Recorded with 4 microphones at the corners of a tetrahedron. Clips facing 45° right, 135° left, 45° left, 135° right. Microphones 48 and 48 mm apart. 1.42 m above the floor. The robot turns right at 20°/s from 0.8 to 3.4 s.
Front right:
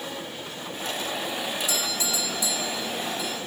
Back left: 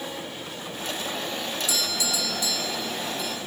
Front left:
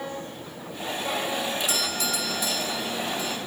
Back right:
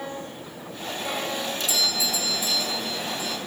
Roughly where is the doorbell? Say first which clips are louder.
Even, back right 1 dB; ahead.